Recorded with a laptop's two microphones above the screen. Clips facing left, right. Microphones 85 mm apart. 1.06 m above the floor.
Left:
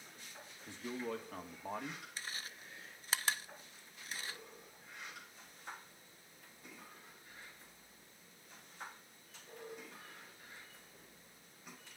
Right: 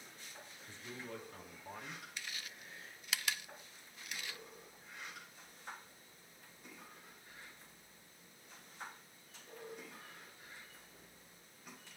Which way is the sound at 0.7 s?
80° left.